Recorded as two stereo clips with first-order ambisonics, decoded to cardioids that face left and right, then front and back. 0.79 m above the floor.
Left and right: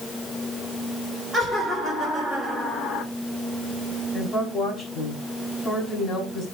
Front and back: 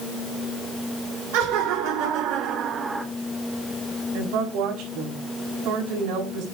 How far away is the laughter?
About 2.5 m.